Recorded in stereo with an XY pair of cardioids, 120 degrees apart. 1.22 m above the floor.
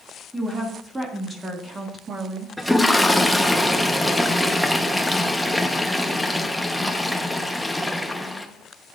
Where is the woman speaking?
15° right, 2.5 m; by 2.5 s 40° right, 1.6 m.